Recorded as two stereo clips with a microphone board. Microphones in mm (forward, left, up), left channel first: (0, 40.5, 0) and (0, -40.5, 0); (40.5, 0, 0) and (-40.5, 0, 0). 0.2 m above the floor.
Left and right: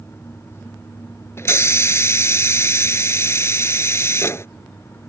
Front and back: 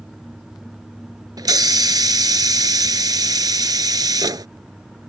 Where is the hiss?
145° left.